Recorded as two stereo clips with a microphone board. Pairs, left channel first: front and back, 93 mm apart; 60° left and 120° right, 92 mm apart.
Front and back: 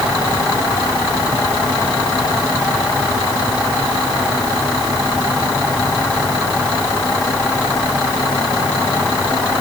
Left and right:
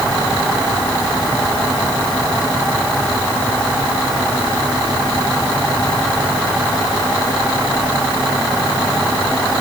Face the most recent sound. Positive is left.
No sound to turn to.